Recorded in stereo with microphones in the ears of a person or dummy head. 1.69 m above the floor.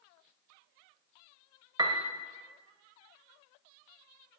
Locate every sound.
1.8 s a piano: 25° right (ahead or behind), 1.1 m